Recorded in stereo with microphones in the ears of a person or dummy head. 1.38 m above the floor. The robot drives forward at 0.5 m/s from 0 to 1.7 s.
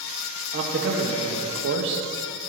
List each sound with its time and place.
0.5 s a man speaking: 40° right (ahead or behind), 1.4 m; by 2.0 s 60° right (ahead or behind), 1.1 m